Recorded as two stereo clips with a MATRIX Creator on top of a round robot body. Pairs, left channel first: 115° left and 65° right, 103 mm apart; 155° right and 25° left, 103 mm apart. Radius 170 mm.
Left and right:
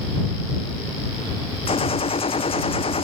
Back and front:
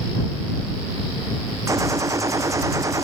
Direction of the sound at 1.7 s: 85° left.